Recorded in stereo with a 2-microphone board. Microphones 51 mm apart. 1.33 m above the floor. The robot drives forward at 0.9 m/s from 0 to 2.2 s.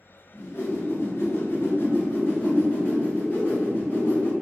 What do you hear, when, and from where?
0.3 s a whoosh: 45° left (ahead or behind), 1.3 m; by 4.3 s 35° left (ahead or behind), 1.5 m